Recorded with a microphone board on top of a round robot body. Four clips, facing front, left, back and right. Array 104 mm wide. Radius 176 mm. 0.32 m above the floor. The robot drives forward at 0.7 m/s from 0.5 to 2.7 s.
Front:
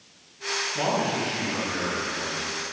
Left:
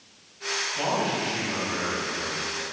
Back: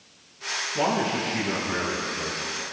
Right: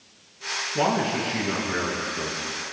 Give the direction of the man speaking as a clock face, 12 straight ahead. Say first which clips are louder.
Right 4 dB, back 1 dB; 3 o'clock.